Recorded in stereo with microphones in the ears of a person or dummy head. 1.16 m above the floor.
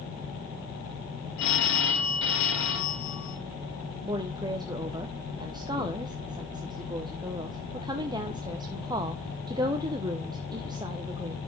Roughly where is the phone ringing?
Left.